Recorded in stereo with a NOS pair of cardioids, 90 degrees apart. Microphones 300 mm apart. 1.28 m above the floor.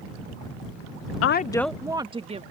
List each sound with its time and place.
1.2 s a woman speaking: 55° left; by 2.4 s 20° right